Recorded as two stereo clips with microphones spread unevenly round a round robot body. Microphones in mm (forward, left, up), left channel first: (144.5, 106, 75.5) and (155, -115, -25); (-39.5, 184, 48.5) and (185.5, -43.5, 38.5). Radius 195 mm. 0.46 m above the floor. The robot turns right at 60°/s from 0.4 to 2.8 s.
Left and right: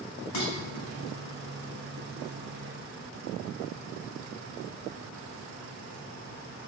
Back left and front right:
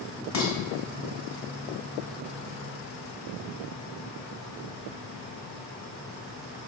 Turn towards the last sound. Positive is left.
turn(degrees=-120)